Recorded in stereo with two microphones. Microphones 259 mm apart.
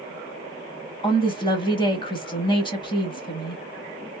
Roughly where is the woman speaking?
Centre.